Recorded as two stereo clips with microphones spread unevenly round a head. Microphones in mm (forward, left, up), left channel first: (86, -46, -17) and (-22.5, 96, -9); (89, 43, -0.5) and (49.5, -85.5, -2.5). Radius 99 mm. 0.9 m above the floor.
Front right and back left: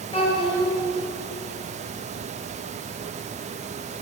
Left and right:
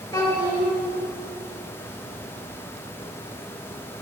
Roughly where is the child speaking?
Ahead.